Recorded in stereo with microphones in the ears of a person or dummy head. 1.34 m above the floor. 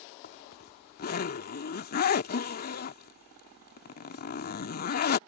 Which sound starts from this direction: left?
A zipper, at 0.2 s.